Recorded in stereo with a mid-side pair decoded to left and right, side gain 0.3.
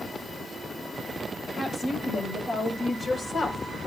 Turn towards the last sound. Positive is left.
turn(degrees=75)